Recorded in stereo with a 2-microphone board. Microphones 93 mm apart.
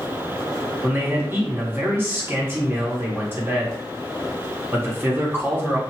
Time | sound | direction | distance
0.8 | a man speaking | 25° right (ahead or behind) | 0.9 m